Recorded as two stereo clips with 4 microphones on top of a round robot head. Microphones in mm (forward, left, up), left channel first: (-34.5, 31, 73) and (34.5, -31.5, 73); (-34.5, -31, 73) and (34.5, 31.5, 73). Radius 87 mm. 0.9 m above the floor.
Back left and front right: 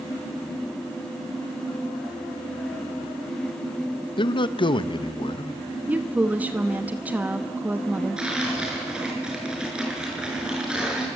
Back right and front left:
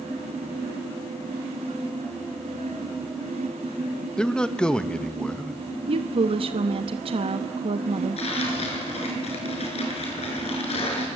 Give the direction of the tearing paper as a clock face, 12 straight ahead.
4 o'clock.